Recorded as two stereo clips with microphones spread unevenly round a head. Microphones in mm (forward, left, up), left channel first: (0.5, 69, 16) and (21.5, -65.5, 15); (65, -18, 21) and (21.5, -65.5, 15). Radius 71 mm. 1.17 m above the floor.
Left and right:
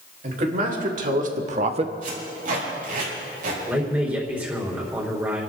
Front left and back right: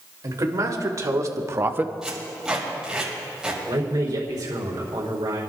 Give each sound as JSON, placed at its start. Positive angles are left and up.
{"t": 0.2, "sound": "a man speaking", "azimuth_deg": -115, "distance_m": 3.0}
{"t": 2.0, "sound": "tape being pulled", "azimuth_deg": -55, "distance_m": 5.5}
{"t": 3.7, "sound": "a man speaking", "azimuth_deg": -160, "distance_m": 4.0}